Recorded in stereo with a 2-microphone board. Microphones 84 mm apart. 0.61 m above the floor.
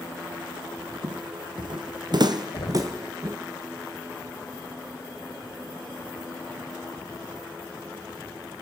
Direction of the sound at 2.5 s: 85° left.